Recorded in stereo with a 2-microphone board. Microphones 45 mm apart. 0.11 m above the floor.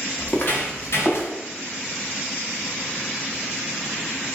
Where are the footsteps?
35° left (ahead or behind), 1.4 m; by 1.3 s 60° left (ahead or behind), 2 m.